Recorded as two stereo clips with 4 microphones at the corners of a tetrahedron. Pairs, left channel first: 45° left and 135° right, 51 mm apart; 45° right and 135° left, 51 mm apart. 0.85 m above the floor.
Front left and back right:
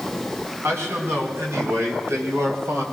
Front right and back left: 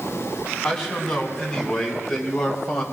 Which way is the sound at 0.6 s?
125° right.